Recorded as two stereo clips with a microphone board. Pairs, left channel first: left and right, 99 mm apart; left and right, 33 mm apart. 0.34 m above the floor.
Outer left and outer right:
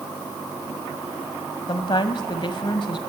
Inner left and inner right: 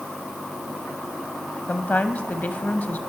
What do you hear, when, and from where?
1.7 s a woman speaking: 55° left (ahead or behind), 1.8 m